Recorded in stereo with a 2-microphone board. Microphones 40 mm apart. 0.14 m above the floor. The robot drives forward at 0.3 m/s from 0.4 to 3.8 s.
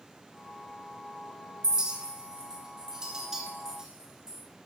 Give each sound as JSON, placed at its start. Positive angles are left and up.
{"t": 1.6, "sound": "a clink", "side_deg": -20, "distance_m": 0.6}